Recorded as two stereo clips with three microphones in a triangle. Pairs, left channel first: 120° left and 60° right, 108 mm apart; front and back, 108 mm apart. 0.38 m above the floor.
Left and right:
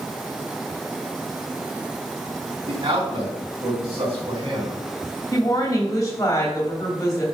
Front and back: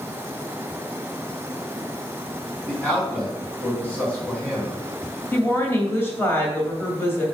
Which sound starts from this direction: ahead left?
A woman speaking, at 5.3 s.